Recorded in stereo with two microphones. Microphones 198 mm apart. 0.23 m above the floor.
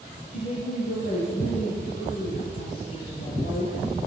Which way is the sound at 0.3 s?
60° left (ahead or behind).